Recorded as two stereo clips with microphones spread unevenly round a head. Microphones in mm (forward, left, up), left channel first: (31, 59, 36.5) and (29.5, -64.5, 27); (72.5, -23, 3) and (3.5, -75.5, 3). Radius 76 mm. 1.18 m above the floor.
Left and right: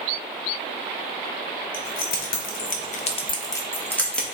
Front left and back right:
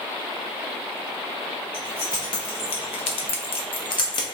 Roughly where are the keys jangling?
Behind left.